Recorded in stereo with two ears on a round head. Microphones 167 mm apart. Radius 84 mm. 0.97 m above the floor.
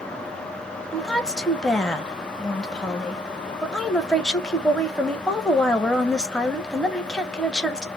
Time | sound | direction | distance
0.9 | a woman speaking | 5° left (ahead or behind) | 0.7 m